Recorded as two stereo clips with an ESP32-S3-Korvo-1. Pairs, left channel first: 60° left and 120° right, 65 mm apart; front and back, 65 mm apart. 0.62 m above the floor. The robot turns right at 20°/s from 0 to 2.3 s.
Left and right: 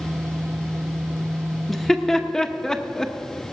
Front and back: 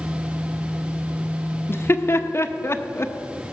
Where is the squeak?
No squeak in this recording.